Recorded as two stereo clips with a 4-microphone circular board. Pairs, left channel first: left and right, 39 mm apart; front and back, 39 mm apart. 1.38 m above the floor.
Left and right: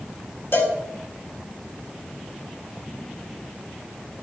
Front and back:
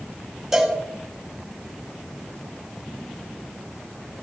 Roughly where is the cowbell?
Left.